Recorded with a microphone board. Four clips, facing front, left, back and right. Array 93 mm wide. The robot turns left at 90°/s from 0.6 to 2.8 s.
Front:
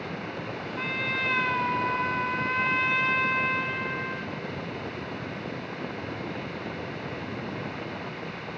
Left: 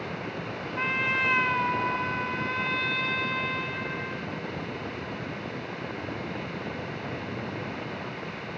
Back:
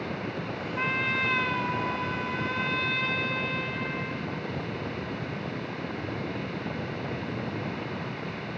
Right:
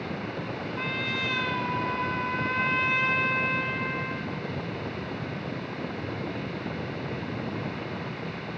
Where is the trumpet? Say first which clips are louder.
Left 6 dB, back 2 dB; 135° left, 1.0 m; by 4.3 s 45° right, 1.0 m.